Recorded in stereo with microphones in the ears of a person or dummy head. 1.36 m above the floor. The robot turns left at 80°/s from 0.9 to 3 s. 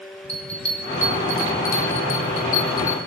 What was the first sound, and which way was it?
A bell, 5° left (ahead or behind).